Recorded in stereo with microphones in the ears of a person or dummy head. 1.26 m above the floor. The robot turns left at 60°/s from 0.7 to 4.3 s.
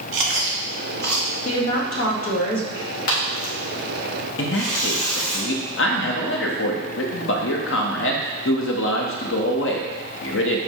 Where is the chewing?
65° right (ahead or behind), 1.2 m; by 1.3 s 40° right (ahead or behind), 1.2 m.